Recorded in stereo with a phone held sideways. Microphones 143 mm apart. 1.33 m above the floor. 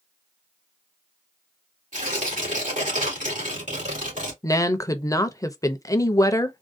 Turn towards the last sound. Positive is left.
turn(degrees=25)  # may be behind; listen again after turning